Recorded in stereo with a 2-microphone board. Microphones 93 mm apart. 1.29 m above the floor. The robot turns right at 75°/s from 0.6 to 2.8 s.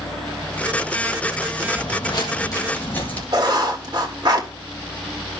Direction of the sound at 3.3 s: 50° right (ahead or behind).